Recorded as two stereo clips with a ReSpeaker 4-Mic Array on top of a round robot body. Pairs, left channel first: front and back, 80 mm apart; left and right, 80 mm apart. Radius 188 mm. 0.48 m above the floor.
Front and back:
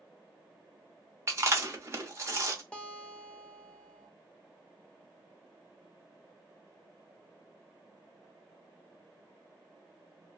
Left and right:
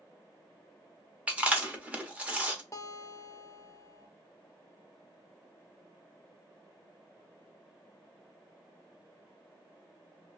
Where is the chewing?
155° right, 1.1 m.